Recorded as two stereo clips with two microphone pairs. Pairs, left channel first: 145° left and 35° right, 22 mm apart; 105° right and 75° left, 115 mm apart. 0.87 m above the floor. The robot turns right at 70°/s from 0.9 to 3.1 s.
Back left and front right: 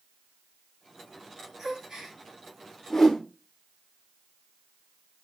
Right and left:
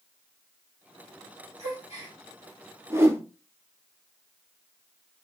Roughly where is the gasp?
Behind right.